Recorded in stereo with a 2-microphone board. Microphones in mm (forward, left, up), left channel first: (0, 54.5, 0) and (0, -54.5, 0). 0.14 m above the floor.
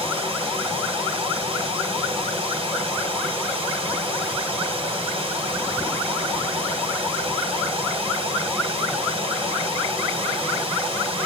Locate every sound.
0.0 s running water: 55° right (ahead or behind), 3 m